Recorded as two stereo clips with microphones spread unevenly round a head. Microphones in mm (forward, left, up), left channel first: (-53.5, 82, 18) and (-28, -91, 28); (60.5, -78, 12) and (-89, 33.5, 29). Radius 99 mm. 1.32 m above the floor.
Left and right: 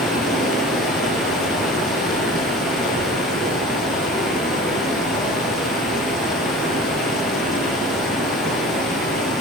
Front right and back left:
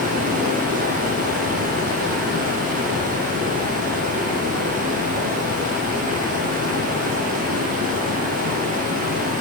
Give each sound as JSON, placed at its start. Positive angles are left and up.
{"t": 0.0, "sound": "running water", "azimuth_deg": -170, "distance_m": 9.5}